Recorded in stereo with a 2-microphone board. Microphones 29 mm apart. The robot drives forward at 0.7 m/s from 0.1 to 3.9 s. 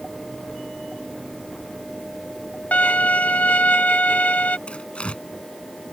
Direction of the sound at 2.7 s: 75° left (ahead or behind).